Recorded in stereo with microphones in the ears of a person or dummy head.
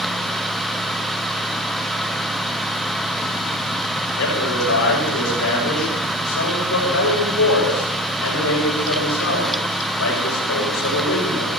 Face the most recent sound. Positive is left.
turn(degrees=85)